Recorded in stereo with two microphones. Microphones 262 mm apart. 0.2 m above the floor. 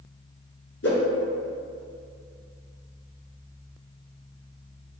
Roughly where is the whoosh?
Left.